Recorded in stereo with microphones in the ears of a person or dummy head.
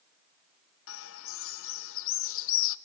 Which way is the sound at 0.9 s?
75° left (ahead or behind).